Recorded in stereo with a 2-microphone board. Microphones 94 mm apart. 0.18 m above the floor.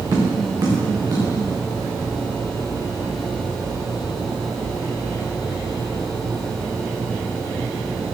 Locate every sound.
0.1 s tapping: 35° right (ahead or behind), 3.5 m